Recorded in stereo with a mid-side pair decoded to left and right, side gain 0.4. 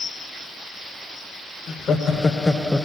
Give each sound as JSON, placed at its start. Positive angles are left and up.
{"t": 1.7, "sound": "laughter", "azimuth_deg": 65, "distance_m": 1.2}